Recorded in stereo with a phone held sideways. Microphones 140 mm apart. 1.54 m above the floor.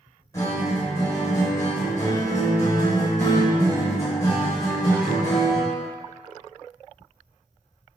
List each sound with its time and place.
0.3 s a guitar: 20° left (ahead or behind), 1.5 m